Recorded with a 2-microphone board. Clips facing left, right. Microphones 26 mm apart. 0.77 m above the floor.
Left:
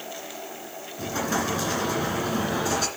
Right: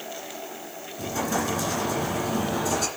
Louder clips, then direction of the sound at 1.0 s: Even; 20° left (ahead or behind).